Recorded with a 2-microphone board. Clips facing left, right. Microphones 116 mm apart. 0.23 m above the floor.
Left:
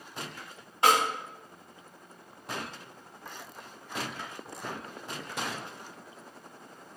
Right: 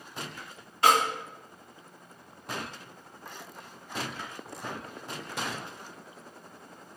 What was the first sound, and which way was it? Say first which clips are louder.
A snare drum: right 1 dB; 25° left (ahead or behind).